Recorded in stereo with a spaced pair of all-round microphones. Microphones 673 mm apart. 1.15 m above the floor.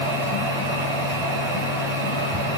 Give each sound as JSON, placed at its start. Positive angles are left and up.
{"t": 0.0, "sound": "a machine running", "side_deg": -45, "distance_m": 4.5}